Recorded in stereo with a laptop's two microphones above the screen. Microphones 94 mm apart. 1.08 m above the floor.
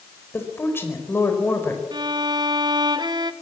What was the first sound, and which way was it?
A woman speaking, 25° left (ahead or behind).